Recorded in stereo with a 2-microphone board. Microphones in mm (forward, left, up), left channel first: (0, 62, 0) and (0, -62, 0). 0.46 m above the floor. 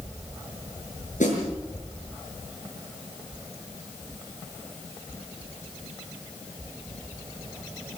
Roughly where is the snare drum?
Left.